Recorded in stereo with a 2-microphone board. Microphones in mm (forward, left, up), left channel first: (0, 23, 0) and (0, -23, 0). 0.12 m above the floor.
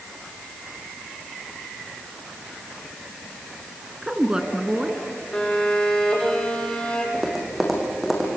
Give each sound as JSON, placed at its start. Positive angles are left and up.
{"t": 4.0, "sound": "a woman speaking", "side_deg": -15, "distance_m": 1.6}
{"t": 5.3, "sound": "a violin", "side_deg": 15, "distance_m": 3.0}
{"t": 7.1, "sound": "tapping", "side_deg": 0, "distance_m": 5.0}